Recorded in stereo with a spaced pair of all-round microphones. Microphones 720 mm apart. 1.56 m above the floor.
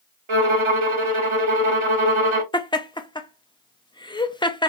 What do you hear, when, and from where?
0.3 s a violin: 45° right (ahead or behind), 0.7 m
2.5 s laughter: 5° left (ahead or behind), 0.5 m